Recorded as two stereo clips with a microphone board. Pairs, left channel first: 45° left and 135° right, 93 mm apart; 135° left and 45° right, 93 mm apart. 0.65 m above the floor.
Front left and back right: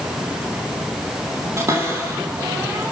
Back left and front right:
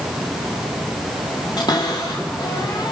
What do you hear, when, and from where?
1.6 s a cupboard door: 170° left, 5.5 m